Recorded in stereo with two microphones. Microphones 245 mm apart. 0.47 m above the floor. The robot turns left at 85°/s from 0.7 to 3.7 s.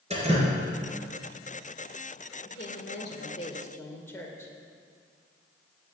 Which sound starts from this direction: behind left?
A woman speaking, at 2.5 s.